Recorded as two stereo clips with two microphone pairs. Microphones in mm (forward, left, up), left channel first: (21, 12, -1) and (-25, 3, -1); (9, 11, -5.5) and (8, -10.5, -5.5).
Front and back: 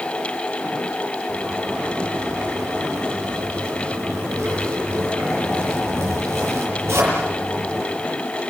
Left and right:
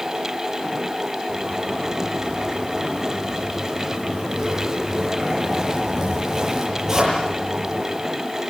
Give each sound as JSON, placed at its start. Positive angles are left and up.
{"t": 1.3, "sound": "a zipper", "azimuth_deg": -155, "distance_m": 9.0}